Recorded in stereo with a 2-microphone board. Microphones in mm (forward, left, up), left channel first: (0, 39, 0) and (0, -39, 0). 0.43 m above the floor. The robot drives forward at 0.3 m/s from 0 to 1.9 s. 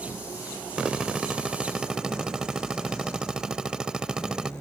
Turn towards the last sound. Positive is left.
turn(degrees=-10)  # may be behind; listen again after turning